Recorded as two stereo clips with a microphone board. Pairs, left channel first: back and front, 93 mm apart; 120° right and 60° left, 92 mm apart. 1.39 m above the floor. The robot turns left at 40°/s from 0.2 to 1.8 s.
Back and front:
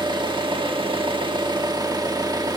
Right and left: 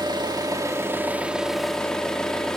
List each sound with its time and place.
0.0 s an engine running: 25° left, 1.6 m; by 2.6 s 40° right, 1.6 m